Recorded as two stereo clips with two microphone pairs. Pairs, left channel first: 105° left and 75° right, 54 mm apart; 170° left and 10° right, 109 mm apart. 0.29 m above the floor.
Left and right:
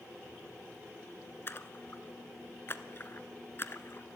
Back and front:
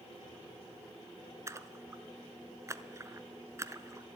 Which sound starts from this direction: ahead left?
A splash, at 1.5 s.